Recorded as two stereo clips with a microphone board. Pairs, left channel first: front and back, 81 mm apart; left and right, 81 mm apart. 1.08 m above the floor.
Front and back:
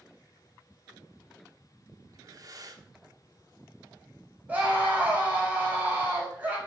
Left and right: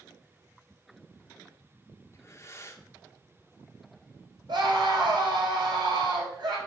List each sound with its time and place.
2.1 s breathing: 140° left, 1.2 m
4.5 s a scream: 110° right, 5 m